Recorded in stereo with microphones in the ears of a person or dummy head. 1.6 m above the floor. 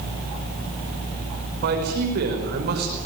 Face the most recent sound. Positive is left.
turn(degrees=-55)  # may be behind; listen again after turning